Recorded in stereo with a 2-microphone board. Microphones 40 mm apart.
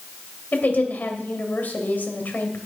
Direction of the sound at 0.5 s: 55° left (ahead or behind).